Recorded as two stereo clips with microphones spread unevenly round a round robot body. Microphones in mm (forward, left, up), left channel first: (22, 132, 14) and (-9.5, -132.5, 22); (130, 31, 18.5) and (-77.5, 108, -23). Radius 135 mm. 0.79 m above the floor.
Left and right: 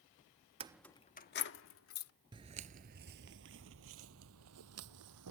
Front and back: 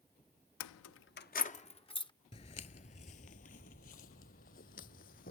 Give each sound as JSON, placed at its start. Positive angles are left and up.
{"t": 0.6, "sound": "keys jangling", "azimuth_deg": -30}
{"t": 2.3, "sound": "footsteps", "azimuth_deg": -40}